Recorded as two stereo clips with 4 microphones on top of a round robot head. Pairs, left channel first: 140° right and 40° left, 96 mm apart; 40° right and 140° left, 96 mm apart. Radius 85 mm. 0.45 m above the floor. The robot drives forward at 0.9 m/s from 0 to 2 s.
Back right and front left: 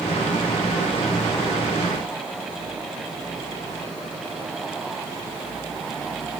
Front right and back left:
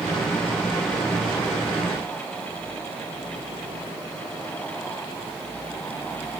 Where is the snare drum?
No snare drum in this recording.